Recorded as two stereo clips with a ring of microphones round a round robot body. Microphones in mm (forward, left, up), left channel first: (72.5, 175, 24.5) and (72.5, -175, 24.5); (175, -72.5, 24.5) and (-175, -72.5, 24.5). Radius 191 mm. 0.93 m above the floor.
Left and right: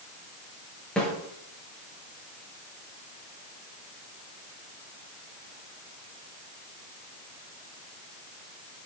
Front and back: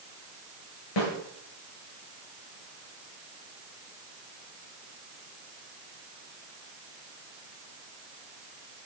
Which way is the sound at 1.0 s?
5° left.